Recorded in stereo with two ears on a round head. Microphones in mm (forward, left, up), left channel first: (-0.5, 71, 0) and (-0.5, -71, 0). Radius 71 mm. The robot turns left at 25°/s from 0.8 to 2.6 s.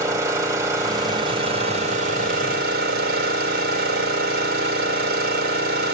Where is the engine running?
20° right, 2.5 m; by 6.0 s 65° right, 2.5 m.